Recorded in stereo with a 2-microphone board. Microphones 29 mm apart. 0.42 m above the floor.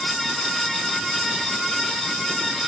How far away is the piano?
No piano in this recording.